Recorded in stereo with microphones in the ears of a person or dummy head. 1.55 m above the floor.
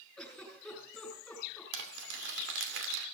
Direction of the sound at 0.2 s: Centre (ahead or behind).